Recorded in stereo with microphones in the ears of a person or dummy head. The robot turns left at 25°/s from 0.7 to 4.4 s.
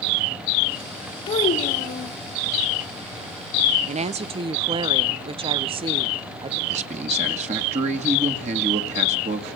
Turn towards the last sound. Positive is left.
turn(degrees=-45)  # may be behind; listen again after turning